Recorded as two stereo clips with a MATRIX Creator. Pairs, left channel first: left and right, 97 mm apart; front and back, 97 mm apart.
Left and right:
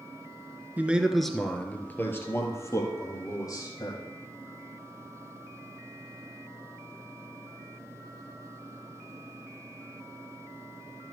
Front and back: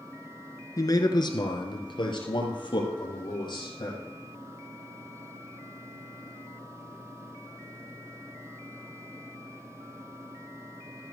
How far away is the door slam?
No door slam in this recording.